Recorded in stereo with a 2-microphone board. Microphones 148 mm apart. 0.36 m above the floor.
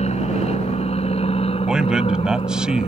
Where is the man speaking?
5° right (ahead or behind).